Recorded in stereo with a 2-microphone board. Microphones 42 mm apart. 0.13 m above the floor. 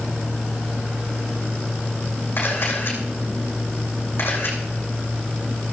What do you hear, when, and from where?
2.4 s a camera shutter: 55° left (ahead or behind), 6.5 m